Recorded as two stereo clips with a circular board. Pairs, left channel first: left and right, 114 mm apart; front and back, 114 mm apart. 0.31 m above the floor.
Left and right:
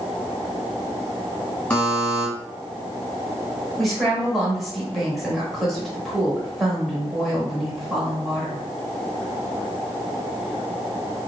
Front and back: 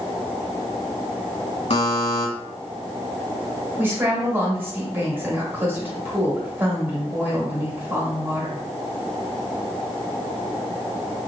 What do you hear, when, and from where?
1.7 s a buzzer: 10° left, 1.1 m
3.8 s a woman speaking: straight behind, 1.0 m